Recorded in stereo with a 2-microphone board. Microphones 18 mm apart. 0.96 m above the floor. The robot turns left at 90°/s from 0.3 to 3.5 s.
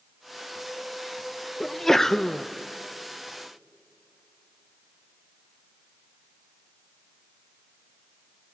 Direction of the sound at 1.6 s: 10° left (ahead or behind).